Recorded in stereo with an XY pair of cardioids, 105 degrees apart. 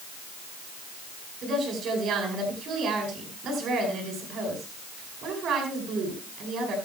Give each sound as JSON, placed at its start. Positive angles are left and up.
{"t": 1.4, "sound": "a woman speaking", "azimuth_deg": -70, "distance_m": 9.0}